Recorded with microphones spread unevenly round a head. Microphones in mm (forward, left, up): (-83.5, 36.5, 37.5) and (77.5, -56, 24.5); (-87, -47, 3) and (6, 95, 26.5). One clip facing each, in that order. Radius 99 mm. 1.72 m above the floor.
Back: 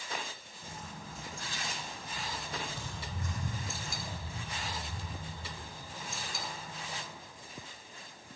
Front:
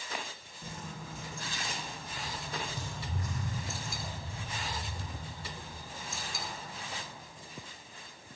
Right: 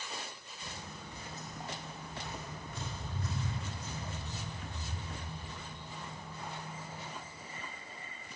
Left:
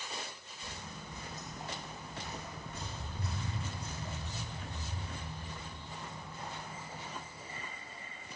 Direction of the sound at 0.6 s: 50° right.